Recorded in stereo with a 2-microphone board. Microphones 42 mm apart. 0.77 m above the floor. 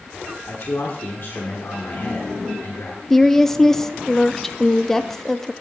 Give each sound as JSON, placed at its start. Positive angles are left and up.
{"t": 0.5, "sound": "a man speaking", "side_deg": 55, "distance_m": 1.9}
{"t": 3.1, "sound": "a woman speaking", "side_deg": 10, "distance_m": 0.7}